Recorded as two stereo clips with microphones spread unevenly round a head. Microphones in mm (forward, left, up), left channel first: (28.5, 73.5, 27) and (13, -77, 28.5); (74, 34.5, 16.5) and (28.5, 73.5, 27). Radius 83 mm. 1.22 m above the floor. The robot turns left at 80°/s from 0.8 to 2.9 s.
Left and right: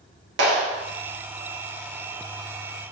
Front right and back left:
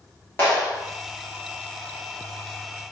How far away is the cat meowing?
I don't hear a cat meowing.